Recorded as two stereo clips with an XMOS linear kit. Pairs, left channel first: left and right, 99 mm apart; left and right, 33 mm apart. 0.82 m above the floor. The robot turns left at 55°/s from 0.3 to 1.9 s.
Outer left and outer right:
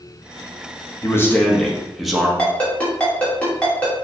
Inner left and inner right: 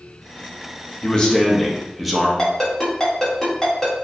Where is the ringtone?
15° left (ahead or behind), 1.1 m.